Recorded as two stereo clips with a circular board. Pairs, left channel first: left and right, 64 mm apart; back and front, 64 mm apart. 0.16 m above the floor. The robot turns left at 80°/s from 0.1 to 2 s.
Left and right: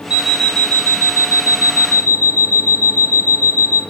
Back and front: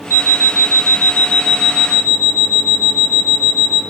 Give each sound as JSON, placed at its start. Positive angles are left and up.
{"t": 0.1, "sound": "an alarm clock", "azimuth_deg": -160, "distance_m": 1.4}